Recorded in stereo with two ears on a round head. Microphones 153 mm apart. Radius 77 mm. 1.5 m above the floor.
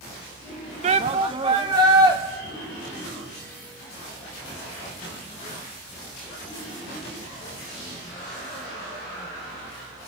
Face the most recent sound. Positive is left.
turn(degrees=-25)  # may be behind; listen again after turning